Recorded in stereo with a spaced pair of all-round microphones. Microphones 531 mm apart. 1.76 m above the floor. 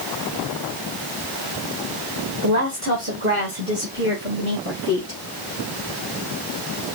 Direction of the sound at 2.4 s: 35° right (ahead or behind).